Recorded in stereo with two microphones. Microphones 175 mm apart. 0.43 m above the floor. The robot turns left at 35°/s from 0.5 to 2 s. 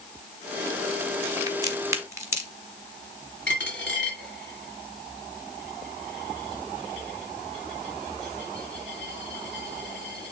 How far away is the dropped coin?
About 2.5 m.